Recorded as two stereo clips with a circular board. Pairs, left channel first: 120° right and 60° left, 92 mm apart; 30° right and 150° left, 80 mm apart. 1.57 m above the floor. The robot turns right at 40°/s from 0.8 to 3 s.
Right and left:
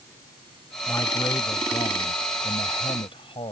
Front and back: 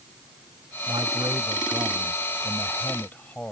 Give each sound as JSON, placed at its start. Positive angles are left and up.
{"t": 0.9, "sound": "a man speaking", "azimuth_deg": 175}